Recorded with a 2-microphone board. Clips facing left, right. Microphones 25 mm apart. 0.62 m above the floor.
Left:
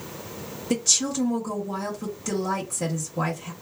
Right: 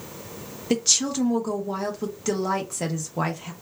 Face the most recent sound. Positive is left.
turn(degrees=-25)  # may be behind; listen again after turning